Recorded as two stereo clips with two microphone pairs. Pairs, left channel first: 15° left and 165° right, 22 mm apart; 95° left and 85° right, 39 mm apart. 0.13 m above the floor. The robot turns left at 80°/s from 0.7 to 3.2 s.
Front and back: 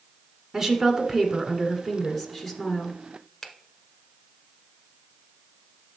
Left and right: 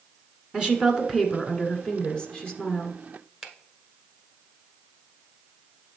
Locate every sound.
0.5 s a woman speaking: 125° right, 1.5 m; by 3.0 s 55° left, 1.5 m
3.4 s a finger snap: 5° left, 1.1 m